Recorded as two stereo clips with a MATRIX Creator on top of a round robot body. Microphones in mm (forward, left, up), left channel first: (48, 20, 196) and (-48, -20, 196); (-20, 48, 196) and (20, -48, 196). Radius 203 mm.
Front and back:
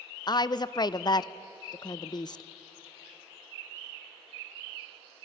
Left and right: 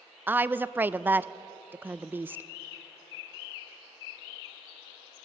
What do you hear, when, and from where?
0.3 s a woman speaking: 5° right, 0.7 m